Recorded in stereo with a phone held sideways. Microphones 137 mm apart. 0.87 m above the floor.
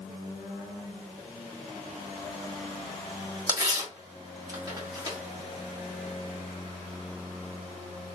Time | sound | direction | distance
3.5 | tearing paper | 30° right (ahead or behind) | 1.4 m